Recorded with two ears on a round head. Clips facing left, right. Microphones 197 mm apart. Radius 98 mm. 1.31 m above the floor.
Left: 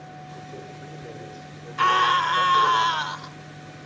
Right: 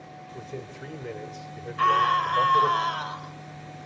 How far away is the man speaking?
About 4.5 m.